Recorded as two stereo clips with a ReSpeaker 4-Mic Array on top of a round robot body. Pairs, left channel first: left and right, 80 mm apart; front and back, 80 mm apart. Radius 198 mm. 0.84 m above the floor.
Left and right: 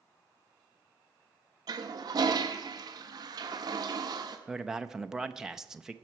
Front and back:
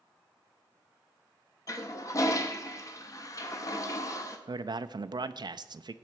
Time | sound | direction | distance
1.7 | a toilet flushing | 50° right | 0.8 m
4.5 | a man speaking | 175° right | 0.6 m